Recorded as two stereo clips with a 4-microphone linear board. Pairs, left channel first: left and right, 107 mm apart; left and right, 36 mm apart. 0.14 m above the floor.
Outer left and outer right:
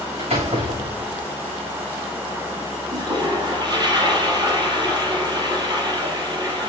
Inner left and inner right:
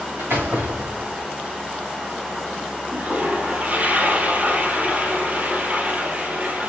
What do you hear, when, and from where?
0.2 s a door slam: 70° right (ahead or behind), 7.5 m
2.9 s a toilet flushing: 40° right (ahead or behind), 2.5 m